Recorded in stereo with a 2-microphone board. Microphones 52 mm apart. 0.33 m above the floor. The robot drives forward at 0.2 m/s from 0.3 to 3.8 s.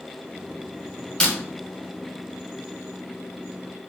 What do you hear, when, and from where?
1.2 s breaking glass: 10° left (ahead or behind), 0.8 m